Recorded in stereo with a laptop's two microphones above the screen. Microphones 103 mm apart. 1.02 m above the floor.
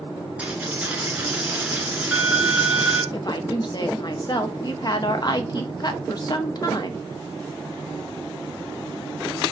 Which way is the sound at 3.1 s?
40° left (ahead or behind).